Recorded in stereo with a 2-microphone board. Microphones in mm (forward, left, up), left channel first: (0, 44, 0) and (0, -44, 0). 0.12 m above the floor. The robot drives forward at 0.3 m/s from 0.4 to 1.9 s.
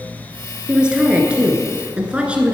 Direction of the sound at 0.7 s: 10° right (ahead or behind).